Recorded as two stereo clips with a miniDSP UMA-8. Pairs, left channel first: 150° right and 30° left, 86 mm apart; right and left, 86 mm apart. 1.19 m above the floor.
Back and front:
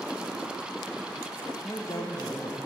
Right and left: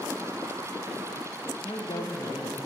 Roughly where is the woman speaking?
Right.